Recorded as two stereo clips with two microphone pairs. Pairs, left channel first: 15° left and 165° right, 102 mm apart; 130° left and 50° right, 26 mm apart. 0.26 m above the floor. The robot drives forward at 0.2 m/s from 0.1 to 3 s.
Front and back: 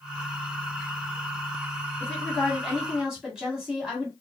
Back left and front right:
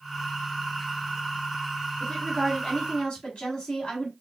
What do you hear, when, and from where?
2.0 s a woman speaking: 105° left, 1.4 m; by 4.1 s 115° left, 1.4 m